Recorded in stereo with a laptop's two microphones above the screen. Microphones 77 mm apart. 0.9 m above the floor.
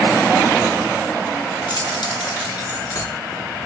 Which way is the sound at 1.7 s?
65° left (ahead or behind).